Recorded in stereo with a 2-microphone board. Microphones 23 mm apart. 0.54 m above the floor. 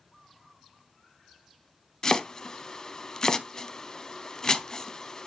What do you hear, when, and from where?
2.0 s chopping: 30° left (ahead or behind), 0.6 m